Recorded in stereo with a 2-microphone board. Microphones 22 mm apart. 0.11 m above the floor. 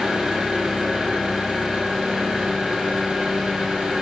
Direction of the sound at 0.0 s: 65° right (ahead or behind).